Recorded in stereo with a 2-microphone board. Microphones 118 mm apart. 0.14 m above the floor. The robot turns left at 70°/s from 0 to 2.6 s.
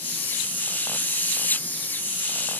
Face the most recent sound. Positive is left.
No sound to turn to.